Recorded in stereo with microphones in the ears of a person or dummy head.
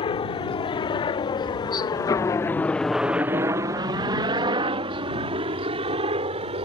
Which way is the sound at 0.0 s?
25° left (ahead or behind).